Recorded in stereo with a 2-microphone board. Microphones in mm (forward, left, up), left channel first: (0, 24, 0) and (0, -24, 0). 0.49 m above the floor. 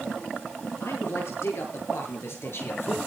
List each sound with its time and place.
0.8 s a man speaking: 65° left (ahead or behind), 8.5 m; by 3.0 s 55° left (ahead or behind), 6 m